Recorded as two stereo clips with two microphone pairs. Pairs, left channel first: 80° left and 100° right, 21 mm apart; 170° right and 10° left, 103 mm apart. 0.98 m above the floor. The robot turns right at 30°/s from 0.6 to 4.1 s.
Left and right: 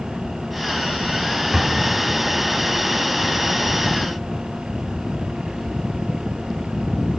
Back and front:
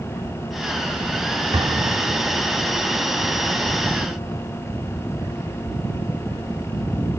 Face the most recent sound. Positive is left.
turn(degrees=60)